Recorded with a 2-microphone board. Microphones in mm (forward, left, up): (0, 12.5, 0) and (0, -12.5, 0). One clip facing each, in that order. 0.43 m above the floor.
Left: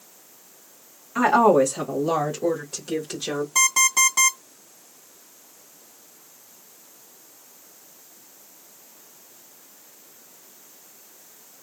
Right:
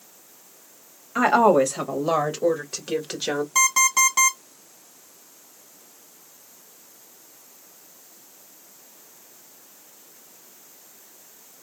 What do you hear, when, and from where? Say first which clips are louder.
1.1 s a woman speaking: even; 25° right (ahead or behind), 2 m; by 3.5 s 40° right (ahead or behind), 1.4 m
3.5 s an alarm clock: even; 15° right (ahead or behind), 1.7 m